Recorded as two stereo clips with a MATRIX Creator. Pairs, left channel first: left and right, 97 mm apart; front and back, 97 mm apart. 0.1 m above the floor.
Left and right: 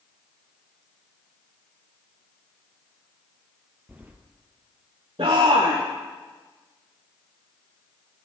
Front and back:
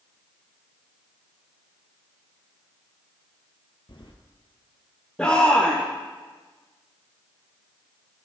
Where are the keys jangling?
20° right, 1.8 m.